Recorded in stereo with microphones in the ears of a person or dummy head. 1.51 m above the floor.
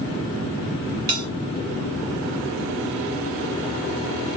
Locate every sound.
1.1 s a bell: 15° right (ahead or behind), 1.3 m